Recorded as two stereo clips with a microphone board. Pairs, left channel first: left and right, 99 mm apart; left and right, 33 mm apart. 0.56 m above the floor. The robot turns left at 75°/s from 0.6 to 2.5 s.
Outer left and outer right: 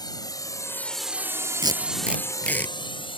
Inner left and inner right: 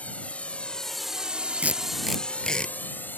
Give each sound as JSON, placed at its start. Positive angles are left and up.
{"t": 0.0, "sound": "a drone", "side_deg": 45}
{"t": 1.6, "sound": "tape being pulled", "side_deg": -50}